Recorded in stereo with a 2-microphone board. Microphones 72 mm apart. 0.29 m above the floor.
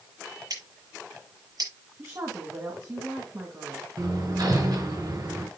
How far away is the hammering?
About 4 m.